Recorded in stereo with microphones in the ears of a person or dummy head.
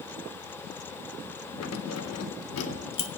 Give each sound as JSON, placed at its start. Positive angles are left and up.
{"t": 1.6, "sound": "keys jangling", "side_deg": 75, "distance_m": 1.1}